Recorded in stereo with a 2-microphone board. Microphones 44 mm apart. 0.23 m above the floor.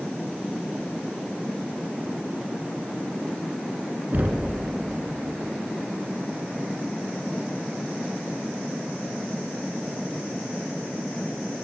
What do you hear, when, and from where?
4.1 s knocking: 45° right (ahead or behind), 2 m